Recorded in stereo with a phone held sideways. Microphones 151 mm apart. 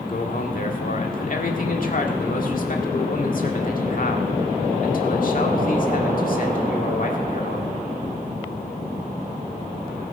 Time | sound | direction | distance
0.1 | a man speaking | 60° left (ahead or behind) | 1.9 m